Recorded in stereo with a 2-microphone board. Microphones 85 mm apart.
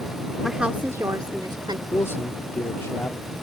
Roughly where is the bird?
No bird in this recording.